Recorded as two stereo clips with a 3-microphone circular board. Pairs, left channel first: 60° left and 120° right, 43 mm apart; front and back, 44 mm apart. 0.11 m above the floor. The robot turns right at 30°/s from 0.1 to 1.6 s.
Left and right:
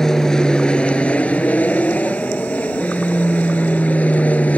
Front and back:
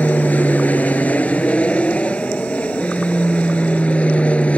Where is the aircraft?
10° right; by 4.6 s 35° left.